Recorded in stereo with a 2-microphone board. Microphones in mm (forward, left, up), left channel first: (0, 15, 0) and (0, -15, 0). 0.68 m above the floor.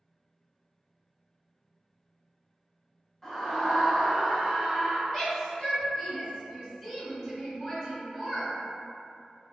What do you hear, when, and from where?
3.2 s a scream: 10° left (ahead or behind), 1.0 m; by 5.0 s 35° right (ahead or behind), 0.9 m
5.1 s a shout: 20° left (ahead or behind), 1.5 m